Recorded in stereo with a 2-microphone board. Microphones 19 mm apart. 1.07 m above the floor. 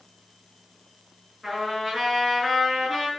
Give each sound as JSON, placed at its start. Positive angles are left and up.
{"t": 1.4, "sound": "a trumpet", "side_deg": -5, "distance_m": 8.0}